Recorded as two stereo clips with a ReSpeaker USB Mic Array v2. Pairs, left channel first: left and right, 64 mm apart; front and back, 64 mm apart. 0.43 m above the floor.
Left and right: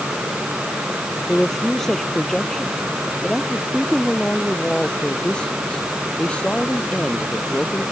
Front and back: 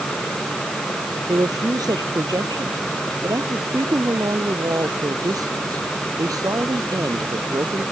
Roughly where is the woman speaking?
Behind.